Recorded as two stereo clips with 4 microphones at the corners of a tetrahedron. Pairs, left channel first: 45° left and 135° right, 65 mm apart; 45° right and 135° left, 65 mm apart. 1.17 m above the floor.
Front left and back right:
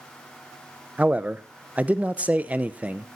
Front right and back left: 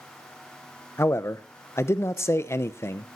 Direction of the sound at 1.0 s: 75° right.